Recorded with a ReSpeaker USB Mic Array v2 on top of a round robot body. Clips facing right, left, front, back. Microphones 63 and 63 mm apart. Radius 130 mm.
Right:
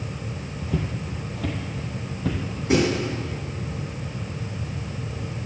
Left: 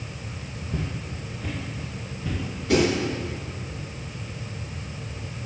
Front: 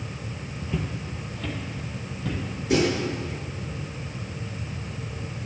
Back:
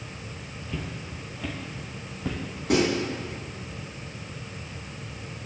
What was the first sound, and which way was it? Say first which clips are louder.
Footsteps: right 4 dB, front 4 dB; 80° right.